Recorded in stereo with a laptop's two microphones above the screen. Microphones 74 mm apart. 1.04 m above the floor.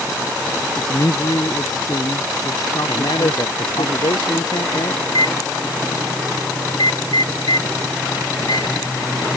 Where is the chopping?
I don't hear chopping.